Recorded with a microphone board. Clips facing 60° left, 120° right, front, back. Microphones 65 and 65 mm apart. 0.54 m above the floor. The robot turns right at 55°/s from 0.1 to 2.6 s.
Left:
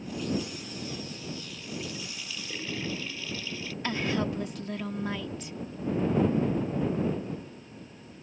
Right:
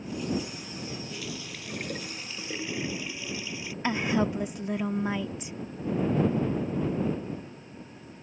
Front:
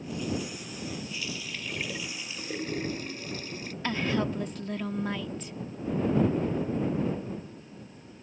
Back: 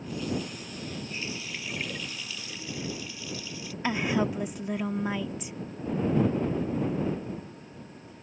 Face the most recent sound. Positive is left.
turn(degrees=-130)